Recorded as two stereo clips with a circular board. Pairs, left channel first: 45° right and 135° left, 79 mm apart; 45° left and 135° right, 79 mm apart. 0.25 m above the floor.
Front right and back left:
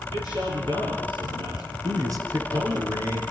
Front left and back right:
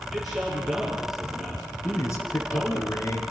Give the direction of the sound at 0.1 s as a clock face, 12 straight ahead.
7 o'clock.